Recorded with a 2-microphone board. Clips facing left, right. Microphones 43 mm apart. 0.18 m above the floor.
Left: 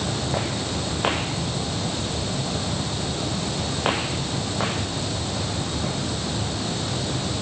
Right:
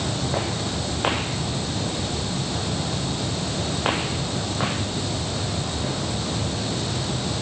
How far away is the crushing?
I don't hear crushing.